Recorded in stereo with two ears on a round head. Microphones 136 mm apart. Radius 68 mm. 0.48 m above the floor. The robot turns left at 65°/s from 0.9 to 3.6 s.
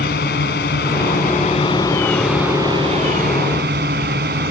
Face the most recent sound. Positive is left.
turn(degrees=-85)